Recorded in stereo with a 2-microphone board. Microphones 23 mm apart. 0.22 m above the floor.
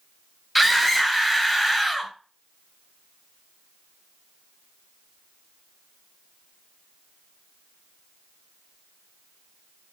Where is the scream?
5° right (ahead or behind), 1.0 m.